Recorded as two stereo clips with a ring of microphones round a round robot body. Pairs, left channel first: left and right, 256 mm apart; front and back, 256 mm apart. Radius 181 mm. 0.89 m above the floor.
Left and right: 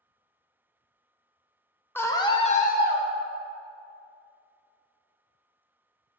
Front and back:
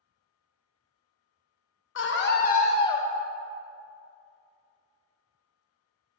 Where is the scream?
10° left, 1.1 m; by 3.0 s 75° left, 1.0 m.